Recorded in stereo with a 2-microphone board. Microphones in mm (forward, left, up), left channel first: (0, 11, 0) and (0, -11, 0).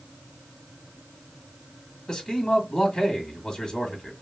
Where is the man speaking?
25° left (ahead or behind), 1.5 m.